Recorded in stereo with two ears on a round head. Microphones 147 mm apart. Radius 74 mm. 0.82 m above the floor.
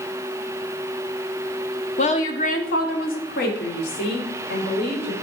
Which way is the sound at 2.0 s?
40° left (ahead or behind).